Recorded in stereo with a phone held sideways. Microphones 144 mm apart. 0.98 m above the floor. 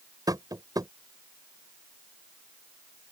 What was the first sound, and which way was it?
Tapping, 25° right (ahead or behind).